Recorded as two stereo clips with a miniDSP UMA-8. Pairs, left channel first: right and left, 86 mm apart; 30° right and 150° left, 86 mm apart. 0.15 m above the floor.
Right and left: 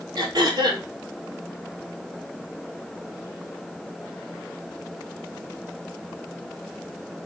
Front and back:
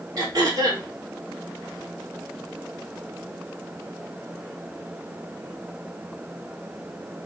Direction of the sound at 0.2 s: 110° left.